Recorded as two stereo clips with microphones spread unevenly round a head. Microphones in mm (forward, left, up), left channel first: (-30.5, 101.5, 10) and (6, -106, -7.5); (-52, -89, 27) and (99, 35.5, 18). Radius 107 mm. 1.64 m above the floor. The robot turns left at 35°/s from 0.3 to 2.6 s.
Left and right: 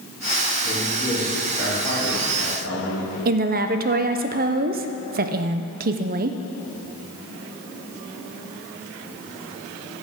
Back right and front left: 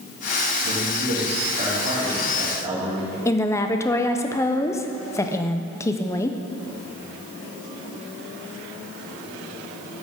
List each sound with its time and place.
0.6 s a man speaking: 35° left, 4.5 m; by 3.1 s 35° right, 4.5 m
3.2 s a woman speaking: 80° right, 0.5 m